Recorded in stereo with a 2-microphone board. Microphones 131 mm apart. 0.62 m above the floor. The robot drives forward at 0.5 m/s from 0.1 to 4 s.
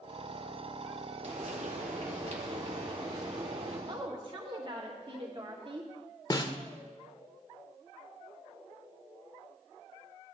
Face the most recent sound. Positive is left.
turn(degrees=30)  # may be behind; listen again after turning